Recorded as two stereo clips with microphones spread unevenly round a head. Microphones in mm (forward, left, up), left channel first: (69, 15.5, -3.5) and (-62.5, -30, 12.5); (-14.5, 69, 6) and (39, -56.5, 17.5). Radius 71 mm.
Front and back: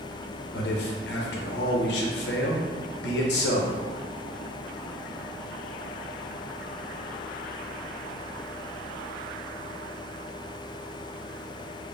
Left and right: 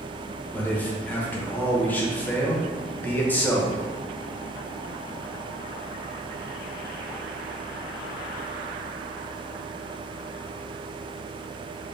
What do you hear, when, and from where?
0.5 s a man speaking: 35° left, 0.8 m